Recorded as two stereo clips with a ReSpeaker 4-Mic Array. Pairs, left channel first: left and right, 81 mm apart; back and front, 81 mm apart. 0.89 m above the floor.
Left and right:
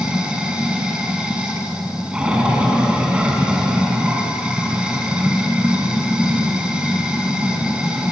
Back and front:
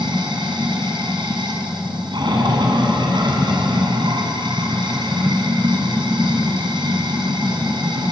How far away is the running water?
About 6 m.